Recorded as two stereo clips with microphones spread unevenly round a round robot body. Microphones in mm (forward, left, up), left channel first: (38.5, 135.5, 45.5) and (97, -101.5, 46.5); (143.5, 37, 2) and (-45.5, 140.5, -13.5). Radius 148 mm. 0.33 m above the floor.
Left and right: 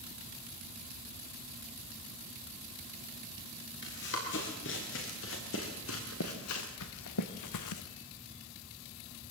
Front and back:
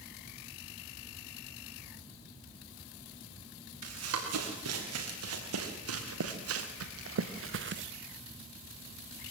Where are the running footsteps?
155° left, 6.5 m; by 7.8 s 110° left, 1.1 m.